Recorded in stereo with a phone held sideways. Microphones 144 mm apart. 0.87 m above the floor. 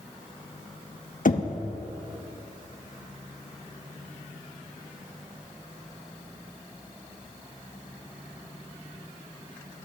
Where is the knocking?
65° left (ahead or behind), 0.8 m.